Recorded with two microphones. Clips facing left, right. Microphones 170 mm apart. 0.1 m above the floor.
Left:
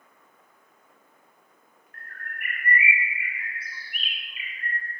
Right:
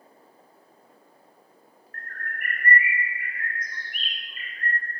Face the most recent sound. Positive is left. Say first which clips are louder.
# right 4 dB
turn(degrees=5)  # may be behind; listen again after turning